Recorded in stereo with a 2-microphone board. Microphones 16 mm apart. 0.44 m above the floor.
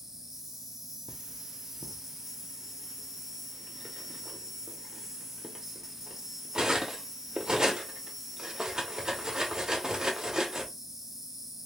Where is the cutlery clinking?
45° right (ahead or behind), 0.7 m.